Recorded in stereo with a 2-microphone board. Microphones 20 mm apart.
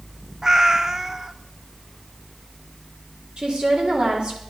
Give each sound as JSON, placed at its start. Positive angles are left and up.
{"t": 0.4, "sound": "a cat meowing", "side_deg": -20, "distance_m": 0.6}
{"t": 3.4, "sound": "a woman speaking", "side_deg": -50, "distance_m": 4.0}